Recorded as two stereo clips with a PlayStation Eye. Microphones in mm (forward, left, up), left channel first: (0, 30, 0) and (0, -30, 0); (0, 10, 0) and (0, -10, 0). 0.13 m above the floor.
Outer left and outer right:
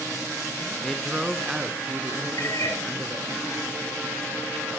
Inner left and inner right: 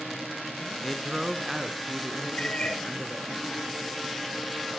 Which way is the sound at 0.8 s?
5° left (ahead or behind).